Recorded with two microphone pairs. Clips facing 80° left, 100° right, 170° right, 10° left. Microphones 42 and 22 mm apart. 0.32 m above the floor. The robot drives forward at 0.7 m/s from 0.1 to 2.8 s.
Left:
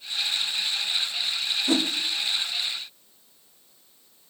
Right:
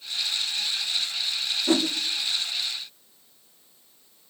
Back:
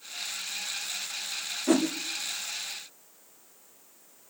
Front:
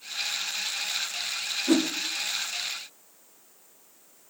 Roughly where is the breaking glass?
I don't hear breaking glass.